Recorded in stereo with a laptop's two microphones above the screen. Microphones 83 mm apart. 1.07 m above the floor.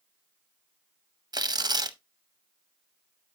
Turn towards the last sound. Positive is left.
turn(degrees=-55)  # may be behind; listen again after turning